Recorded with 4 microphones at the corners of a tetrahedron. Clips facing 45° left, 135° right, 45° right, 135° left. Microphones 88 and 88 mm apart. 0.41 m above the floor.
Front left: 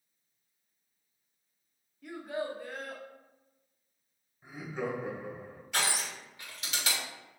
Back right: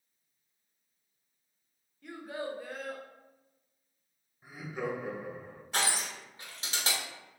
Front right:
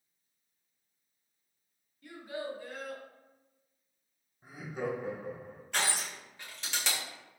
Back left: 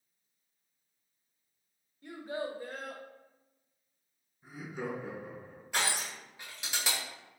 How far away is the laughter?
About 1.7 m.